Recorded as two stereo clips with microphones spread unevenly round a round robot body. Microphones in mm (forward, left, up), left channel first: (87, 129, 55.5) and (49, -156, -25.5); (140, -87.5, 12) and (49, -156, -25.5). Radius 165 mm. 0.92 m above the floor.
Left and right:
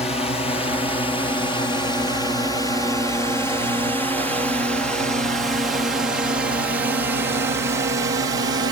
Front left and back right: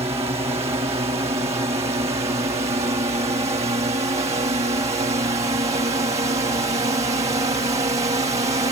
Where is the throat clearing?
I don't hear throat clearing.